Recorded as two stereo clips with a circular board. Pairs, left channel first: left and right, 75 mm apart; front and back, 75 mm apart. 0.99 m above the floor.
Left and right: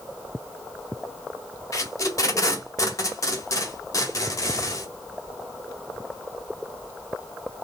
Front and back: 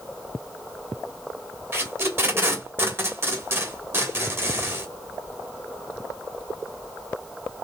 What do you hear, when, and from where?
1.7 s tape being pulled: 125° left, 1.5 m